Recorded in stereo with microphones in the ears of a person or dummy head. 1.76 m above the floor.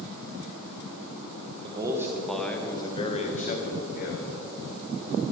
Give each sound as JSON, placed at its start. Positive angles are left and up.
{"t": 1.6, "sound": "a man speaking", "side_deg": -25, "distance_m": 1.3}